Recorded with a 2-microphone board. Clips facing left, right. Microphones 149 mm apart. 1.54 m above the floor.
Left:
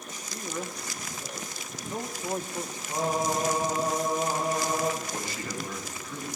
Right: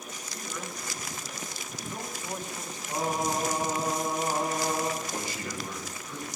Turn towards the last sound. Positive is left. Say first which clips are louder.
# even
turn(degrees=-20)  # may be behind; listen again after turning